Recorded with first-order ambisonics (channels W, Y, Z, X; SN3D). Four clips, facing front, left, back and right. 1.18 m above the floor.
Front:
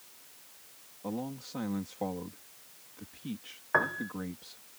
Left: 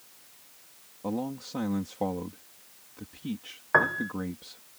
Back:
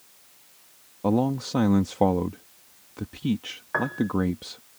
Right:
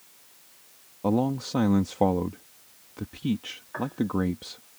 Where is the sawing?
No sawing in this recording.